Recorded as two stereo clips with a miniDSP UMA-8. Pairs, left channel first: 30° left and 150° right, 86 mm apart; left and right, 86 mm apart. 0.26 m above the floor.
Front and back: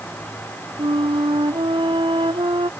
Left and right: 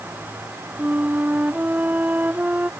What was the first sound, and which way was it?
A flute, 160° right.